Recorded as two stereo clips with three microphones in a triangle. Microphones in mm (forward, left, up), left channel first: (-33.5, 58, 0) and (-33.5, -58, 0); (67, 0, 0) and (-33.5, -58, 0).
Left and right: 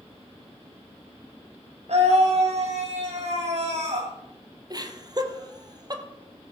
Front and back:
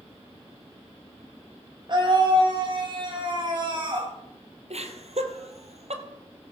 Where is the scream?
105° right, 5.5 m.